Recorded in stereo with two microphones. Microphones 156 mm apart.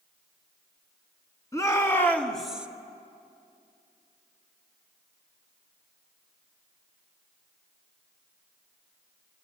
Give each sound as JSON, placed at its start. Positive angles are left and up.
{"t": 1.5, "sound": "a shout", "side_deg": 20, "distance_m": 2.5}